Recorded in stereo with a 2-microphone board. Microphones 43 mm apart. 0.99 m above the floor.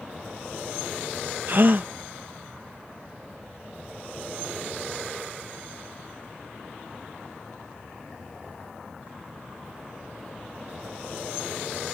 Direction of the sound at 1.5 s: 50° right (ahead or behind).